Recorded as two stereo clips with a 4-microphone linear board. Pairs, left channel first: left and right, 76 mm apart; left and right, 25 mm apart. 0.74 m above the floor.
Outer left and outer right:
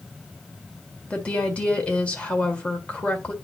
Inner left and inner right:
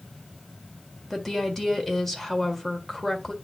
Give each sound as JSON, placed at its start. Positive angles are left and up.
{"t": 1.1, "sound": "a woman speaking", "side_deg": 15, "distance_m": 1.8}